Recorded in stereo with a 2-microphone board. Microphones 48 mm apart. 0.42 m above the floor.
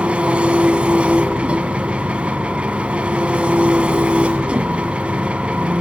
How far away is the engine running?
About 1.0 m.